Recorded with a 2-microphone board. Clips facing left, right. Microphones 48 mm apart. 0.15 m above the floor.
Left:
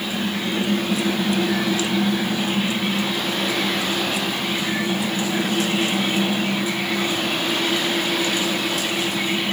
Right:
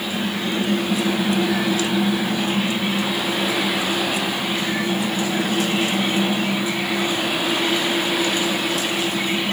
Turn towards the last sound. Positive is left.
No sound to turn to.